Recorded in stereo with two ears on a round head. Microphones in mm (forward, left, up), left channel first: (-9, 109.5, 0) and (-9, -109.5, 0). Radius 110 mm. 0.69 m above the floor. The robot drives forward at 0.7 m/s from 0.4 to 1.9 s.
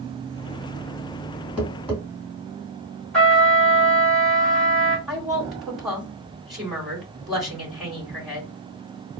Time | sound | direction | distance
1.6 | tapping | 5° right (ahead or behind) | 2 m
3.1 | a trumpet | 5° left (ahead or behind) | 1.1 m
5.1 | a woman speaking | centre (ahead or behind) | 2 m